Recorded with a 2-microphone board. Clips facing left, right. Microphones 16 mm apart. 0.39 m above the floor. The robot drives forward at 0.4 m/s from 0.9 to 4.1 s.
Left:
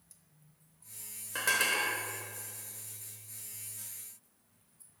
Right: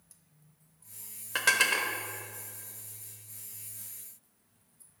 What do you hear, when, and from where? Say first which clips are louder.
1.4 s dishes clattering: right 4 dB; 40° right (ahead or behind), 0.8 m; by 1.9 s 35° right (ahead or behind), 0.9 m